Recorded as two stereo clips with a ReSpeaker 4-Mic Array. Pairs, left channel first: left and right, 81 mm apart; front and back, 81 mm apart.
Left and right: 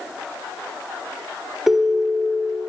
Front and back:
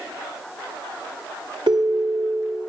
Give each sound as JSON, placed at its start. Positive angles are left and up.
{"t": 1.7, "sound": "a ringtone", "azimuth_deg": -175, "distance_m": 1.1}